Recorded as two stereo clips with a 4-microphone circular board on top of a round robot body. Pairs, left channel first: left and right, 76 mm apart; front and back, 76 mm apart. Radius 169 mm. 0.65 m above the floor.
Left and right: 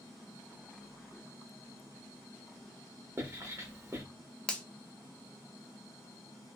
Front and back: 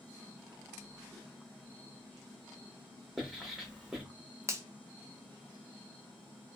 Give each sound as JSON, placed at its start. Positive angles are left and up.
{"t": 3.2, "sound": "writing", "azimuth_deg": -95, "distance_m": 1.2}
{"t": 4.5, "sound": "a finger snap", "azimuth_deg": 160, "distance_m": 0.7}